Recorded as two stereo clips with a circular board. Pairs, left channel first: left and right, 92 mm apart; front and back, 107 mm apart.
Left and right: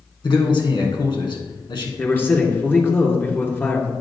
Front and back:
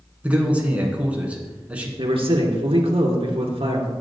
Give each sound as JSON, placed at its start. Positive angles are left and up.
{"t": 0.2, "sound": "a man speaking", "azimuth_deg": 105, "distance_m": 2.5}
{"t": 2.0, "sound": "a man speaking", "azimuth_deg": 155, "distance_m": 2.5}